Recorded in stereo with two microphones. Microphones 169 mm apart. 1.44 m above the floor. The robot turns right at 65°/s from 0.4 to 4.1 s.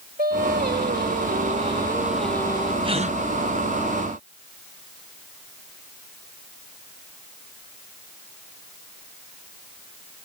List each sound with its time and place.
0.2 s singing: 115° right; by 2.7 s 35° left
2.8 s a gasp: 30° right (ahead or behind); by 3.2 s 50° right (ahead or behind)